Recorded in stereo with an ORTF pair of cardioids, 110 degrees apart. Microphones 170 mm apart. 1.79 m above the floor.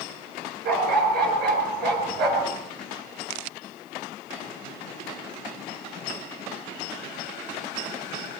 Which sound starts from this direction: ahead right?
A dog barking, at 0.7 s.